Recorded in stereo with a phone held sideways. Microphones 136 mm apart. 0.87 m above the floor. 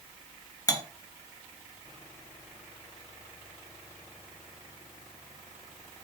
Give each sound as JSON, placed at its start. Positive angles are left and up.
{"t": 0.7, "sound": "cutlery clinking", "side_deg": 25, "distance_m": 0.6}